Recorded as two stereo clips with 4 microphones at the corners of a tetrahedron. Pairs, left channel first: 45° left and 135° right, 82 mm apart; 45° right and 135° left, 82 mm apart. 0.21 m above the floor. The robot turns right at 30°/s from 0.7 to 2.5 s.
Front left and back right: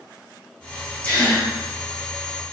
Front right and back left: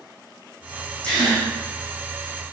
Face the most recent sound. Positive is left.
turn(degrees=50)